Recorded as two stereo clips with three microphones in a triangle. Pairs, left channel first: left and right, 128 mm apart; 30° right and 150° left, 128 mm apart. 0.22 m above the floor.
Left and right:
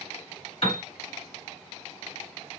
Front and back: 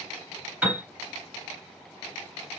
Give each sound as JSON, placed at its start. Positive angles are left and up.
{"t": 0.6, "sound": "a piano", "azimuth_deg": 75, "distance_m": 1.6}